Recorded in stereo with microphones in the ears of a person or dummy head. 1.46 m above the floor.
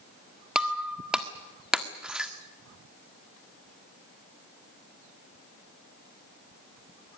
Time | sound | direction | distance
0.6 | breaking glass | centre (ahead or behind) | 1.5 m